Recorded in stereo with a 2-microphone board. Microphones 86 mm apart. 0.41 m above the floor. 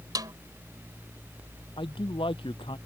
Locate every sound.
0.1 s a snare drum: 50° right (ahead or behind)
1.8 s a man speaking: 85° left